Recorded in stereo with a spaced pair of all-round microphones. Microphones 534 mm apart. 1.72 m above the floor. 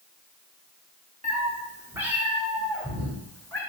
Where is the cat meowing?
15° right (ahead or behind), 1.3 m; by 3.6 s 5° left (ahead or behind), 2.5 m.